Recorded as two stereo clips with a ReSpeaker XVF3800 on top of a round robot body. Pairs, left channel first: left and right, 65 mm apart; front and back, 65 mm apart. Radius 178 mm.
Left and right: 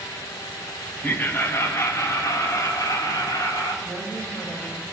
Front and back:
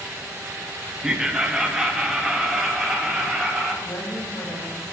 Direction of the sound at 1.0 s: 110° left.